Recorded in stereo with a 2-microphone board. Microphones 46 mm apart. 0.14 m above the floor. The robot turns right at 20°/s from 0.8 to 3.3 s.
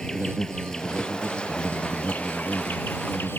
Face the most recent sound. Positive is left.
turn(degrees=65)